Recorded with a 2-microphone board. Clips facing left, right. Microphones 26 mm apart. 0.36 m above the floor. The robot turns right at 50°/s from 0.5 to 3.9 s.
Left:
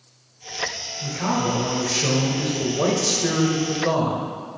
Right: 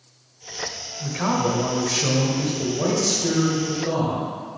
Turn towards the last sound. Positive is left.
turn(degrees=95)